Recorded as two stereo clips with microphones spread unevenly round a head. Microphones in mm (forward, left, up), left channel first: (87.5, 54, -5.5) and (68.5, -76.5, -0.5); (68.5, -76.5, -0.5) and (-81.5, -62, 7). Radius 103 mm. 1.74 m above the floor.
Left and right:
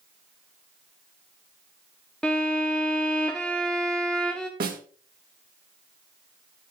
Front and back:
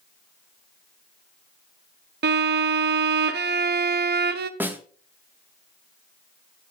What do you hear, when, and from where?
2.2 s a violin: 170° left, 0.9 m
4.6 s a snare drum: 110° right, 2 m